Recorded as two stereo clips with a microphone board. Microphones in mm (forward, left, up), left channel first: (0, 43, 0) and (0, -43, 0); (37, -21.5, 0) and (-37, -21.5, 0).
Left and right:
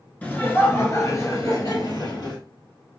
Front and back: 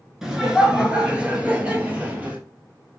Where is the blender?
I don't hear a blender.